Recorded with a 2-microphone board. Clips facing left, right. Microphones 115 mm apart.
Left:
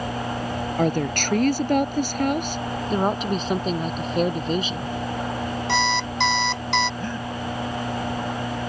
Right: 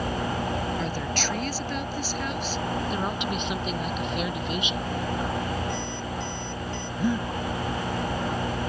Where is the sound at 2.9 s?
40° left (ahead or behind).